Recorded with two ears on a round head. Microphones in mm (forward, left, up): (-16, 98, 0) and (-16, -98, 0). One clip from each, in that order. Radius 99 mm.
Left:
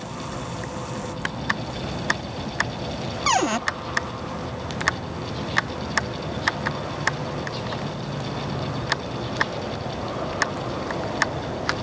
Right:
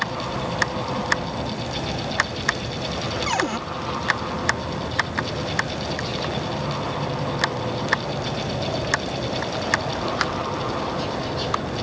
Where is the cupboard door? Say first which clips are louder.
Left 5 dB; 35° left (ahead or behind).